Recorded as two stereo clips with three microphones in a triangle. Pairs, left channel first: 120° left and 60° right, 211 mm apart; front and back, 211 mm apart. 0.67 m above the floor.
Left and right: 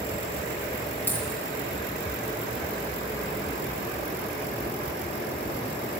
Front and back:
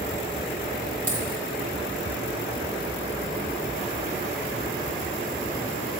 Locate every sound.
1.1 s a dropped coin: 160° right, 3 m